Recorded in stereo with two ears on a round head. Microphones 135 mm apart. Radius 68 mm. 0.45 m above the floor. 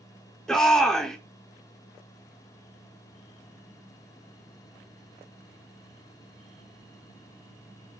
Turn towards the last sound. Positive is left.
turn(degrees=5)  # may be behind; listen again after turning